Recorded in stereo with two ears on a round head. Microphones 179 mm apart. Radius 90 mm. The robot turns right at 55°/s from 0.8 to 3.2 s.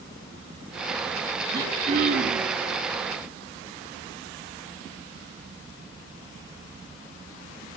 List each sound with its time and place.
1.5 s throat clearing: 165° right, 3 m; by 2.5 s 110° right, 3 m